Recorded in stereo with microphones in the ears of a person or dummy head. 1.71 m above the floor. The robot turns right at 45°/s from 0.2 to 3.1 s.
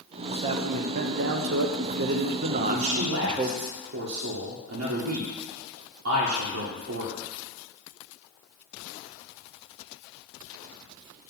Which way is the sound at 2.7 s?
60° right (ahead or behind).